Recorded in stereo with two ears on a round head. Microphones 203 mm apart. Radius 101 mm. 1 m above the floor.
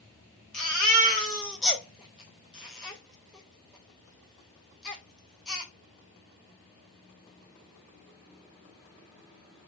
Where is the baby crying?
5° left (ahead or behind), 0.9 m.